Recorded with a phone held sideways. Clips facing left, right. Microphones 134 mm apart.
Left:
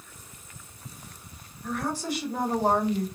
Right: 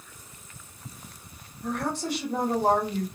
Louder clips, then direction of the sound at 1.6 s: Right 1 dB; 60° right (ahead or behind).